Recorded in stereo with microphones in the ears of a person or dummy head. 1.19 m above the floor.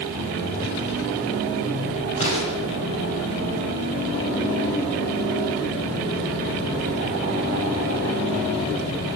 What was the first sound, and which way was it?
An explosion, 35° left (ahead or behind).